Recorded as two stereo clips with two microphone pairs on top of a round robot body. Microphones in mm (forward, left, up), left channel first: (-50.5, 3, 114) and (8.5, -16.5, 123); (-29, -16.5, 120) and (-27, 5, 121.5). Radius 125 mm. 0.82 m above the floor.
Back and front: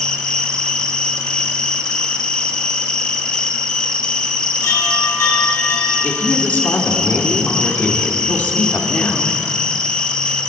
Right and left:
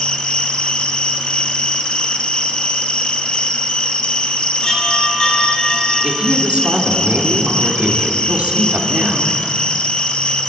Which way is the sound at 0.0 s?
125° right.